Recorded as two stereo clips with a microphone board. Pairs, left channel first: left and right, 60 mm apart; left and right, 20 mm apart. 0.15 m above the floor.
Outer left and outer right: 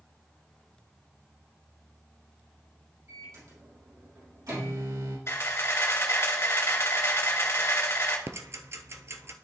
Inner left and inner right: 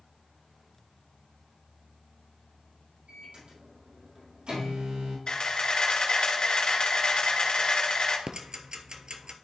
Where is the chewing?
No chewing in this recording.